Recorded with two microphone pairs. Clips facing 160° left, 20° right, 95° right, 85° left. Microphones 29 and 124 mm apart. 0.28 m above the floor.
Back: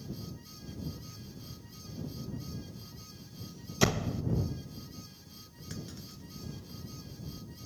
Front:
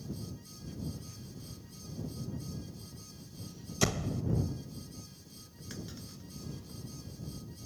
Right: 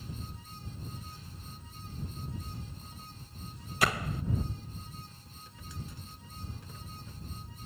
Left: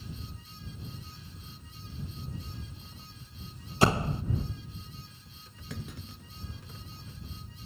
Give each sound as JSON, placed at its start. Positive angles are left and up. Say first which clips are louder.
{"t": 3.8, "sound": "a door slam", "louder": "back 3 dB, left 6 dB", "azimuth_deg": 100}
{"t": 5.7, "sound": "a clunk", "louder": "even, left 5 dB", "azimuth_deg": 65}